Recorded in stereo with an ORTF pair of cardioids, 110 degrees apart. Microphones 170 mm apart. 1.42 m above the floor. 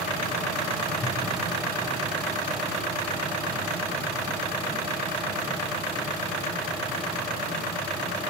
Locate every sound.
1.0 s a whoosh: 15° left, 1.5 m